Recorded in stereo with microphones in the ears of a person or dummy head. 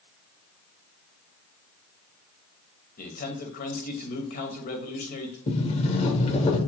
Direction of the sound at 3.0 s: 45° left (ahead or behind).